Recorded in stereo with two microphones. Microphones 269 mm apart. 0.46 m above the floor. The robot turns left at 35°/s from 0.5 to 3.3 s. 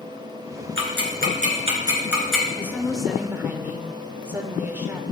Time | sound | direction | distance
0.8 | ticking | 55° right (ahead or behind) | 3 m
2.6 | a woman speaking | 10° left (ahead or behind) | 1.4 m